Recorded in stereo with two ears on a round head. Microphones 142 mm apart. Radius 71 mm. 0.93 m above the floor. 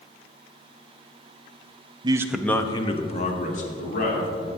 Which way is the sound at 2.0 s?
30° right (ahead or behind).